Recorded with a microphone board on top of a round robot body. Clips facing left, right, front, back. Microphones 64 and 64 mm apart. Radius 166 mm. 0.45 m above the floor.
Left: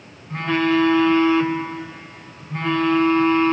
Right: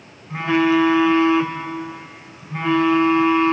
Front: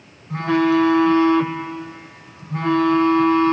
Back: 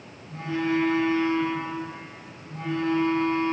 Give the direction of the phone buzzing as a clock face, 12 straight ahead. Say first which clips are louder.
Right 2 dB, front 9 dB; 12 o'clock.